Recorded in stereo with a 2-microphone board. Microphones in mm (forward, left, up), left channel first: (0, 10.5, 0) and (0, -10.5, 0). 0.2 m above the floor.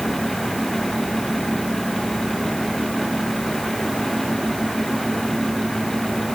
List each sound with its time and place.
Only background noise.